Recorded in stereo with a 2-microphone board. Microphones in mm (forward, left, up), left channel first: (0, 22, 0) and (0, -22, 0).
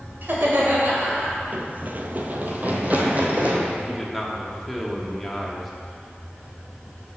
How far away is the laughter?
About 2 m.